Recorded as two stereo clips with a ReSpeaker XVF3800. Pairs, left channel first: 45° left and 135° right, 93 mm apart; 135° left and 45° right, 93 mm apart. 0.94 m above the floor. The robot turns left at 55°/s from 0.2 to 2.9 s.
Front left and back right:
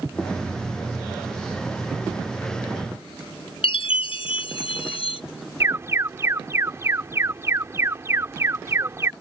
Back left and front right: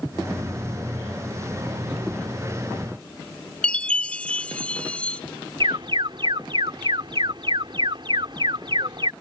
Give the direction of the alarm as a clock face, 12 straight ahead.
2 o'clock.